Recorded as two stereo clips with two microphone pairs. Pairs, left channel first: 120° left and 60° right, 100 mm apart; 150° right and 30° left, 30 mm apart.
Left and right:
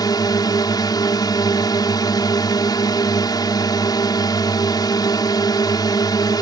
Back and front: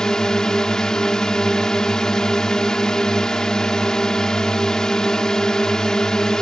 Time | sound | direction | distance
0.0 | a drone | 150° left | ?